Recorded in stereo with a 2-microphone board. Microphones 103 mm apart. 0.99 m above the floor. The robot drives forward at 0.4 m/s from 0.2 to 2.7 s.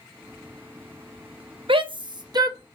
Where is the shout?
60° right (ahead or behind), 0.6 m; by 2.6 s 40° right (ahead or behind), 0.8 m.